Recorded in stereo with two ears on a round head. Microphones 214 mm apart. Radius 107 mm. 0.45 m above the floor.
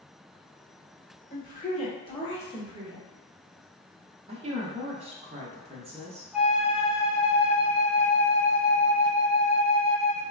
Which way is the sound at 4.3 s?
25° right (ahead or behind).